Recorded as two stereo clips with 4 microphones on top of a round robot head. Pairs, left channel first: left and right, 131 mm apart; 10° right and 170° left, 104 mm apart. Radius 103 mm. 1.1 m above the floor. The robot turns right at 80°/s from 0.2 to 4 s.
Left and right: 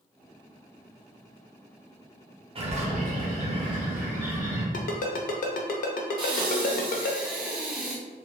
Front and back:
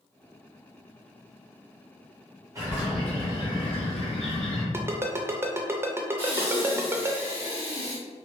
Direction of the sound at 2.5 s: 130° right.